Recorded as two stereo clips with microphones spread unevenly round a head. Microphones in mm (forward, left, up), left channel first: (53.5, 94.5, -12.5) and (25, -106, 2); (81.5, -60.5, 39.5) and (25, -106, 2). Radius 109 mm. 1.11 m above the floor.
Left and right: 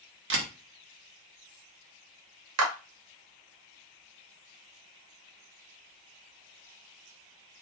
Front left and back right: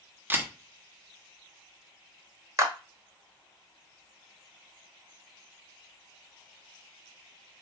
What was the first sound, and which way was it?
A camera shutter, 70° right.